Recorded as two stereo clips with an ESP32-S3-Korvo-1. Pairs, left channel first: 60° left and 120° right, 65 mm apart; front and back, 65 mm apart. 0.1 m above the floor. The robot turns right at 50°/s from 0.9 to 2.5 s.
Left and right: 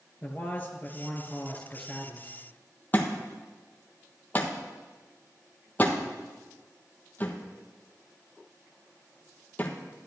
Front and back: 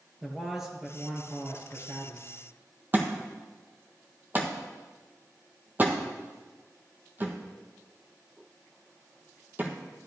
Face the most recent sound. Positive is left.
turn(degrees=120)